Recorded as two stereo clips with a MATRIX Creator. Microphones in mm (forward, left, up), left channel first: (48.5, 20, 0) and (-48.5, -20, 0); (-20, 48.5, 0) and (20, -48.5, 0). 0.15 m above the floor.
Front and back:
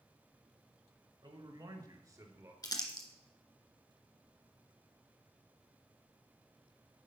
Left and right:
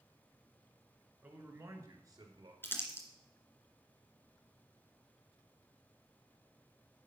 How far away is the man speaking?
About 2 m.